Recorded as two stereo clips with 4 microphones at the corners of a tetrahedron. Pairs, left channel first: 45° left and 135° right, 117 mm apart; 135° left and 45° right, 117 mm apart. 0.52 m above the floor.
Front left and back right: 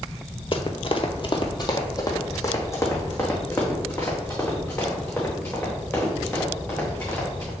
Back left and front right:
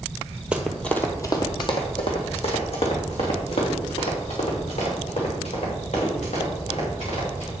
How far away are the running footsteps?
About 0.8 m.